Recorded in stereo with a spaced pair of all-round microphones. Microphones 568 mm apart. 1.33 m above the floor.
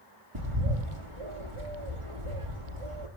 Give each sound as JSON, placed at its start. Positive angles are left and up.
{"t": 0.3, "sound": "a bird", "side_deg": -55, "distance_m": 3.0}